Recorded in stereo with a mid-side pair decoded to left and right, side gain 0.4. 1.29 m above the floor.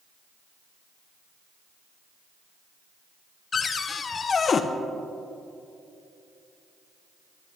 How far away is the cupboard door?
About 0.8 m.